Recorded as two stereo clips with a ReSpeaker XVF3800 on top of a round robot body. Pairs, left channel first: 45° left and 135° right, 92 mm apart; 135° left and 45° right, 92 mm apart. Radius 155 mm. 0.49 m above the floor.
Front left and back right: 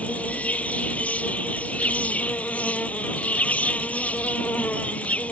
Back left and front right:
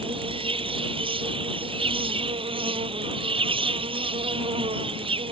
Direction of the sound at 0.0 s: 30° right.